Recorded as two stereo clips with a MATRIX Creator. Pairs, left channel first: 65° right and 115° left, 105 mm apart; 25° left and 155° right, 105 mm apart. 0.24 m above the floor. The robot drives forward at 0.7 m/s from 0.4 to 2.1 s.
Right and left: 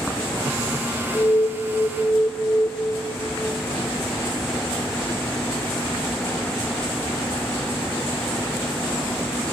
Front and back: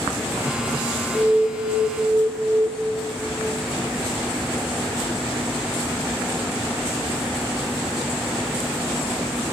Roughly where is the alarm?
Behind right.